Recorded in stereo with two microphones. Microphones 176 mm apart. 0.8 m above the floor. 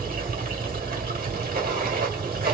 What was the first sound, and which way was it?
Running water, 60° right (ahead or behind).